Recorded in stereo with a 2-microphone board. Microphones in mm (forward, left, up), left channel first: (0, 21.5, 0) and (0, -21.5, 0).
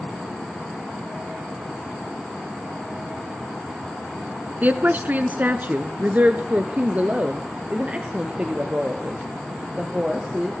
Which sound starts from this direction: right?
A woman speaking, at 4.6 s.